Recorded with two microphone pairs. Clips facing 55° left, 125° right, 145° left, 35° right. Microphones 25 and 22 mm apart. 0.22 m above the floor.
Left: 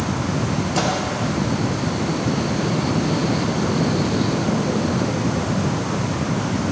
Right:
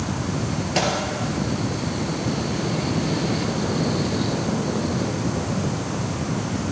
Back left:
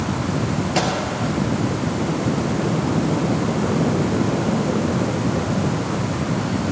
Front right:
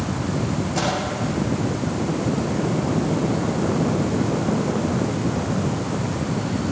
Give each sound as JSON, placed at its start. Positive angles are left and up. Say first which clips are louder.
{"t": 0.8, "sound": "a microwave", "louder": "even, back left 2 dB", "azimuth_deg": -175, "distance_m": 3.5}